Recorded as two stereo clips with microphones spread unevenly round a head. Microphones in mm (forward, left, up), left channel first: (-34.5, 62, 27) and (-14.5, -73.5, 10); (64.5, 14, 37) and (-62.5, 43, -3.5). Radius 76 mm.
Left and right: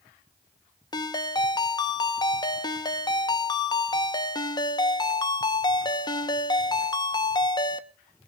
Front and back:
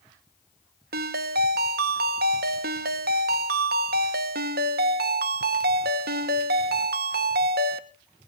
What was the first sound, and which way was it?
A ringtone, 155° left.